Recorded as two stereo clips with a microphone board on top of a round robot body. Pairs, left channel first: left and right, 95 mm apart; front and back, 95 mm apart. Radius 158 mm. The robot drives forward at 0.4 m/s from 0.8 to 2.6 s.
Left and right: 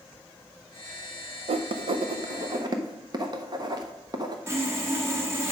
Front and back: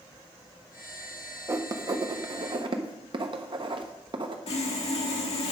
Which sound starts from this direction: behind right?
Writing, at 1.5 s.